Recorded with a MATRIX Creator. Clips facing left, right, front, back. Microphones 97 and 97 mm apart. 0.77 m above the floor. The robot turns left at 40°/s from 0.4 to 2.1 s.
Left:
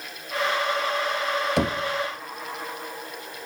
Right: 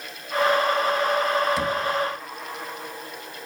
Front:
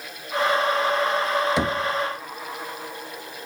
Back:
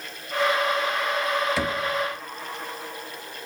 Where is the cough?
No cough in this recording.